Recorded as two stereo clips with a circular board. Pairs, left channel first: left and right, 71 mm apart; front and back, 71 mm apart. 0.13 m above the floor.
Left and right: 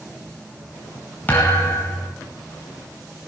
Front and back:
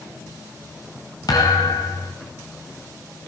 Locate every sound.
1.3 s a thud: 25° left, 9 m